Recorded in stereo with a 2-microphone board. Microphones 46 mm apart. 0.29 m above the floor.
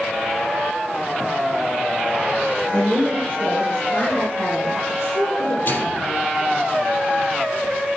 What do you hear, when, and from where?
2.7 s a woman speaking: 60° left (ahead or behind), 2.5 m; by 5.5 s 65° left (ahead or behind), 5.5 m
5.7 s a microwave: 50° left (ahead or behind), 6 m